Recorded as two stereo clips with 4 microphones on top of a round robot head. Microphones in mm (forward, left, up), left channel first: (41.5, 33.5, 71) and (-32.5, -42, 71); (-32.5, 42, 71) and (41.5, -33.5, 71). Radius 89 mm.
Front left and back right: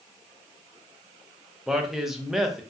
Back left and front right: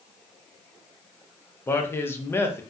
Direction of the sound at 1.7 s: 145° left.